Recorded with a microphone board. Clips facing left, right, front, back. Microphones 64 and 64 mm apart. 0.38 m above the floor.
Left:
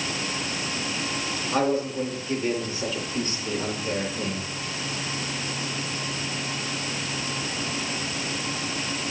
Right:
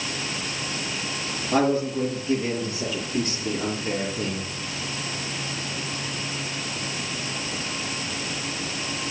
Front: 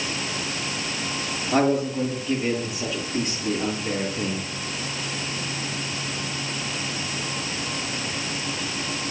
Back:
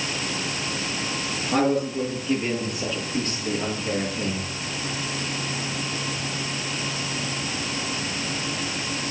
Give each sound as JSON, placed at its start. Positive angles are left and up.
{"t": 1.5, "sound": "a man speaking", "azimuth_deg": -85, "distance_m": 8.5}